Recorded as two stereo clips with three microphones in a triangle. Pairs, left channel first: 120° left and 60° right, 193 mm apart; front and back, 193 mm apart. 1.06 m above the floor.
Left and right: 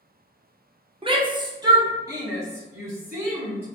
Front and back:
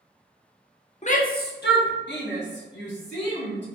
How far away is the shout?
About 0.5 m.